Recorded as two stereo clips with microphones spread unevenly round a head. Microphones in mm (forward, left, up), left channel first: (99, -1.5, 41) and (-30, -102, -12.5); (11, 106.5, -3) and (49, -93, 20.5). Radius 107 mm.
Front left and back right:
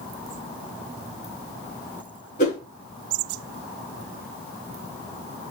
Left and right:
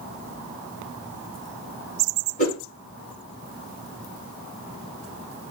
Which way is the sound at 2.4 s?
45° left.